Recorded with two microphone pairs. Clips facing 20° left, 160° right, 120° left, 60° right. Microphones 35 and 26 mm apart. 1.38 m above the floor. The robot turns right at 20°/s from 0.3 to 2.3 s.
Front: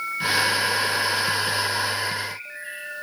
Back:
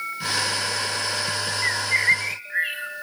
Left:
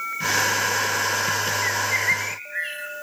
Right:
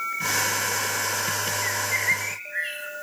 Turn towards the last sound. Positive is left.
turn(degrees=-145)